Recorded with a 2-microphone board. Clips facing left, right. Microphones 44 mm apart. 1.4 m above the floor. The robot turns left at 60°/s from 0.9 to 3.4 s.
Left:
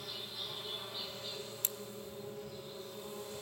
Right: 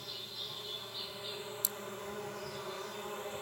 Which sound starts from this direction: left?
Scissors, at 1.6 s.